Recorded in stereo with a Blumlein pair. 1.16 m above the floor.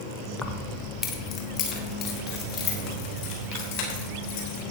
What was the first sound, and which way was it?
Keys jangling, 10° left.